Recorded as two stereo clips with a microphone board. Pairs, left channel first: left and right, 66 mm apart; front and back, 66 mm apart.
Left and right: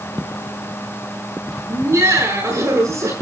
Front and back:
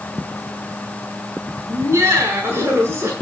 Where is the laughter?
135° right, 9 m.